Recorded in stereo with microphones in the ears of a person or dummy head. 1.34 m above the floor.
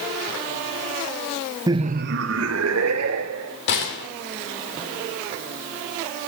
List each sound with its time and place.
1.7 s laughter: 20° right (ahead or behind), 0.9 m; by 3.6 s 90° right, 3 m
3.7 s a gunshot: 65° left (ahead or behind), 3 m